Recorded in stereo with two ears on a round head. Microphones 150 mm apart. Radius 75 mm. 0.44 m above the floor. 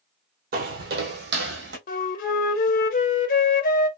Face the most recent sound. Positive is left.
turn(degrees=55)  # may be behind; listen again after turning